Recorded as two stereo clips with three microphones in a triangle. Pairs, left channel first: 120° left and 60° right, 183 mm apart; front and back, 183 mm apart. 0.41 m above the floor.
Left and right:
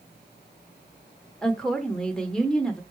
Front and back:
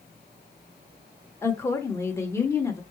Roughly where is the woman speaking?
Ahead left.